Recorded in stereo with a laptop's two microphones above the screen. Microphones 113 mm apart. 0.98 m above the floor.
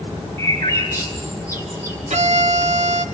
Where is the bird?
25° left (ahead or behind), 6.5 m.